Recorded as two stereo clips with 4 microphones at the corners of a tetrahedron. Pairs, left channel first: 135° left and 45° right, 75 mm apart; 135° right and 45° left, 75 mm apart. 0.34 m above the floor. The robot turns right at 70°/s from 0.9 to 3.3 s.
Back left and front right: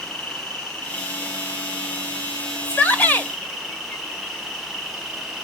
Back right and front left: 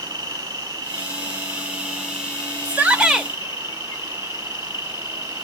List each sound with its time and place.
0.0 s an insect: 55° left, 2 m; by 5.5 s 135° right, 2 m
2.6 s a shout: 80° left, 0.9 m; by 3.3 s 125° left, 0.9 m